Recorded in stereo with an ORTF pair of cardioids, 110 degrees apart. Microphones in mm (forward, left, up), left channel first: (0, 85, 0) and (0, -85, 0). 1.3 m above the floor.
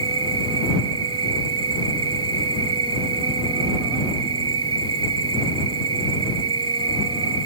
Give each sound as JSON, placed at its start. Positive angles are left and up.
{"t": 0.0, "sound": "an insect", "azimuth_deg": -35}